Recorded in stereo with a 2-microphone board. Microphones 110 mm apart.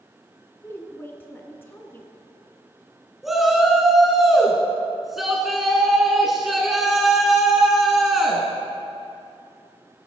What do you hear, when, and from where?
0.6 s a woman speaking: 20° left (ahead or behind), 1.1 m
3.2 s a shout: centre (ahead or behind), 1.1 m